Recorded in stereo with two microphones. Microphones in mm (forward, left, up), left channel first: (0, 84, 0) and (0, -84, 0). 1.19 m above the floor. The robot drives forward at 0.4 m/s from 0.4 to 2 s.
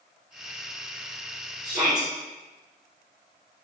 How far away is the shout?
About 3 m.